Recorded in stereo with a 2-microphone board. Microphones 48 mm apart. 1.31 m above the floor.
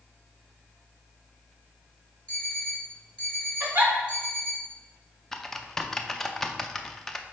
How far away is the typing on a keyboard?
About 0.5 m.